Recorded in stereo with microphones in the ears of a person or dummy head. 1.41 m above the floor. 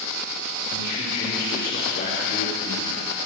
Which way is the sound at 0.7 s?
50° left (ahead or behind).